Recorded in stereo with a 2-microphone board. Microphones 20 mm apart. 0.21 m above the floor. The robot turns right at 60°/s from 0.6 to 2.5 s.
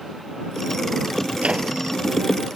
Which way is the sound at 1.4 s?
75° right (ahead or behind).